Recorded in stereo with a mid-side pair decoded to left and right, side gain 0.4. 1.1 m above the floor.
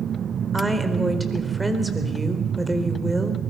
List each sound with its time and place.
0.5 s a woman speaking: 5° right, 4.5 m